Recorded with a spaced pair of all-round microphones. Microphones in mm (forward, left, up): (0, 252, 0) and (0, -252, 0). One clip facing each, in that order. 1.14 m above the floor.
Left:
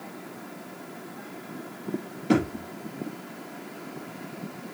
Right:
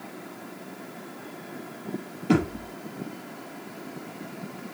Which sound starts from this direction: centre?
A thud, at 2.3 s.